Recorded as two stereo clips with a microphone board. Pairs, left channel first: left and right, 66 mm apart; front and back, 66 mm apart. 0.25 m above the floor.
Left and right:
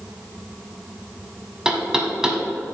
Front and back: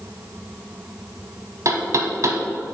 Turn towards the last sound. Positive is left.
turn(degrees=-170)